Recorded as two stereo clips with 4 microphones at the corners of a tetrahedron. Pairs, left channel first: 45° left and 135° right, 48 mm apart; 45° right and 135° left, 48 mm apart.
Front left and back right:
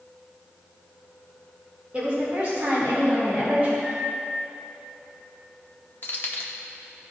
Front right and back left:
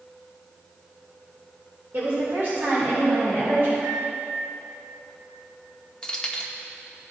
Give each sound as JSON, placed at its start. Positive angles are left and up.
{"t": 1.9, "sound": "a woman speaking", "azimuth_deg": 165, "distance_m": 2.0}
{"t": 3.8, "sound": "a microwave", "azimuth_deg": 135, "distance_m": 2.5}
{"t": 6.0, "sound": "keys jangling", "azimuth_deg": 25, "distance_m": 0.9}